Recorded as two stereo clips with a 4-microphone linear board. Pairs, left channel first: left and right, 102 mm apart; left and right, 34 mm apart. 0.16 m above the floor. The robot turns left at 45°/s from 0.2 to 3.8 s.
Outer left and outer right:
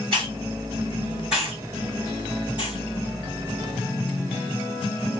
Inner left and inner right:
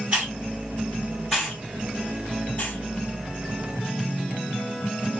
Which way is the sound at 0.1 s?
55° right (ahead or behind).